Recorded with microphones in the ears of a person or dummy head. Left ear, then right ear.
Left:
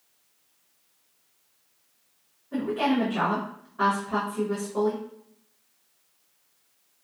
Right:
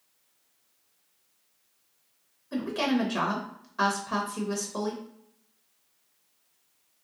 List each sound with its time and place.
2.5 s a woman speaking: 80° right, 0.8 m